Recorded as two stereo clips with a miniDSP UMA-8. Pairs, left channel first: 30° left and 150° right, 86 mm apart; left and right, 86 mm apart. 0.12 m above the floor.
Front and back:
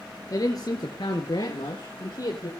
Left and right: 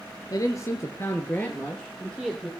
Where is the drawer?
I don't hear a drawer.